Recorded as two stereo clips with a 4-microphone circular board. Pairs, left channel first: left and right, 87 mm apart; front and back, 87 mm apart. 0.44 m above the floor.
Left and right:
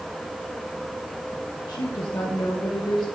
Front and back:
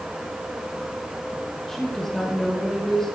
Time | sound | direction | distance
1.7 | a woman speaking | 85° left | 1.5 m